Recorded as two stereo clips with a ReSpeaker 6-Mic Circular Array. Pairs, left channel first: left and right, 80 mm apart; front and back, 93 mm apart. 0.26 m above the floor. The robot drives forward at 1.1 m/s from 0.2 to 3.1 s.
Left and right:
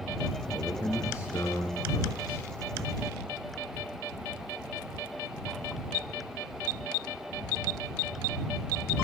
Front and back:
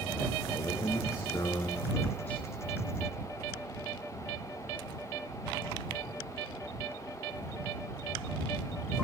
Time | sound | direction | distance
0.5 | a man speaking | 40° left | 4 m